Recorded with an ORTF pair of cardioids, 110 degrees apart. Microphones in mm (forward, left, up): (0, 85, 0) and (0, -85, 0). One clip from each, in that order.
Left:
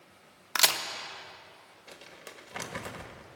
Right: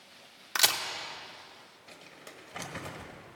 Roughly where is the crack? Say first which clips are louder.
Left 1 dB; ahead.